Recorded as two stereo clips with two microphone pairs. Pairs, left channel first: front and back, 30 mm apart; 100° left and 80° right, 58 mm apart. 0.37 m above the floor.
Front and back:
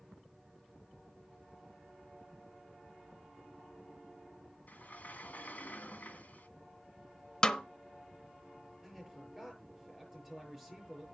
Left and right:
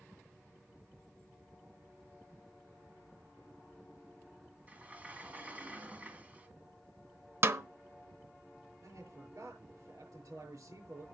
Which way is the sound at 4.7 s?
15° right.